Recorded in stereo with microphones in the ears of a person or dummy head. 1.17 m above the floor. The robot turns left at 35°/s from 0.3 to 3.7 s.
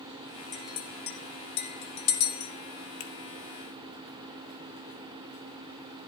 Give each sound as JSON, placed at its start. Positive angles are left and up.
{"t": 0.5, "sound": "a clink", "side_deg": 35, "distance_m": 1.6}
{"t": 3.0, "sound": "a finger snap", "side_deg": 65, "distance_m": 1.3}